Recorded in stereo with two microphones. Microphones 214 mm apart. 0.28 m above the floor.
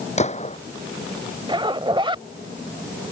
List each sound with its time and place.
0.2 s a gunshot: 30° left (ahead or behind)
1.5 s a zipper: 25° right (ahead or behind)